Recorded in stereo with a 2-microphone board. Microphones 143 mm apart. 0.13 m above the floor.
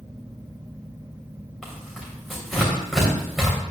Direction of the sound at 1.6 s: 5° left (ahead or behind).